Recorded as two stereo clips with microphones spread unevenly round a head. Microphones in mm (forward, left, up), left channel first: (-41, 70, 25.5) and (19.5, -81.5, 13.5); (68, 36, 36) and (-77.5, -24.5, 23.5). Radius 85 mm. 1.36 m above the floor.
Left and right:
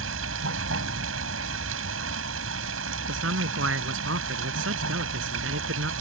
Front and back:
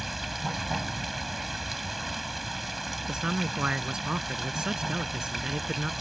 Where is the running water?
65° right.